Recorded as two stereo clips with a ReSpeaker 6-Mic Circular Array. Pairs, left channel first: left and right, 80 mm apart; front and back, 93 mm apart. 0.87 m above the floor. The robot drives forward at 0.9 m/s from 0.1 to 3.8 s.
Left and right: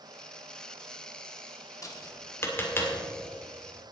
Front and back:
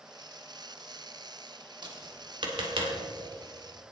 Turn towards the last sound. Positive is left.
turn(degrees=160)